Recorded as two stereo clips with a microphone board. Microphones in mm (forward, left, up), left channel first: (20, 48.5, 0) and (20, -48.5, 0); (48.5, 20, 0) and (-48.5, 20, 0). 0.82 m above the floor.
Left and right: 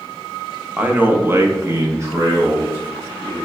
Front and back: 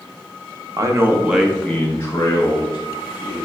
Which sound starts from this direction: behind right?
A man speaking, at 0.8 s.